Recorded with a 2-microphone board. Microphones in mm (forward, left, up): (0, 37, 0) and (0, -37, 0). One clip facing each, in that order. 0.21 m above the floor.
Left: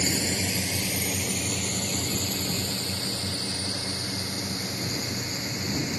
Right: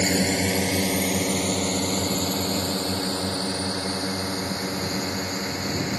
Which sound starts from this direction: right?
A drone, at 0.0 s.